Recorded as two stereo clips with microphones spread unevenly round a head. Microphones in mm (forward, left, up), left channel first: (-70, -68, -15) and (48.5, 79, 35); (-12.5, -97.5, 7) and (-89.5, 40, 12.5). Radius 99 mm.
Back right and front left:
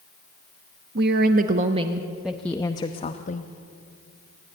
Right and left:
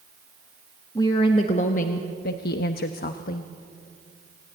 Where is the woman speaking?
10° left, 1.0 m; by 3.5 s 90° right, 1.1 m.